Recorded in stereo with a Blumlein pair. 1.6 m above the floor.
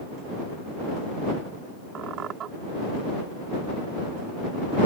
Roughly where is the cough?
No cough in this recording.